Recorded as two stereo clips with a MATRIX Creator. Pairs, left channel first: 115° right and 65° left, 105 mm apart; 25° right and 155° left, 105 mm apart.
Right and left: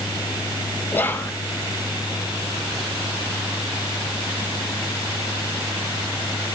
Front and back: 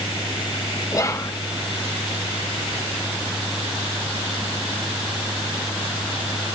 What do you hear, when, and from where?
0.9 s whispering: 55° right, 0.8 m